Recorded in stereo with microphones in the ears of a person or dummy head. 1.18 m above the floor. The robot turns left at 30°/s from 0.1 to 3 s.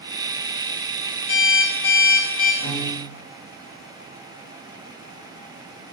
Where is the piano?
30° left (ahead or behind), 2.5 m; by 3.2 s 20° left (ahead or behind), 2.5 m.